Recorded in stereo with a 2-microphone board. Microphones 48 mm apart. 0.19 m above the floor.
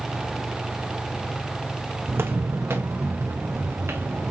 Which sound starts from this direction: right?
Footsteps, at 2.1 s.